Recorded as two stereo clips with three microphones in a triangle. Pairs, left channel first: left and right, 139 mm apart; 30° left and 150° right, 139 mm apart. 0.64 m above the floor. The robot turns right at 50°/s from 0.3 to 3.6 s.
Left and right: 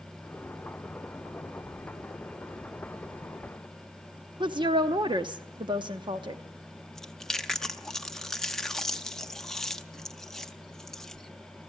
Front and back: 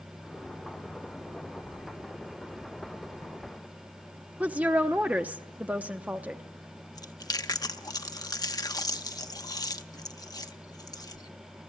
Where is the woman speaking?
75° right, 0.7 m.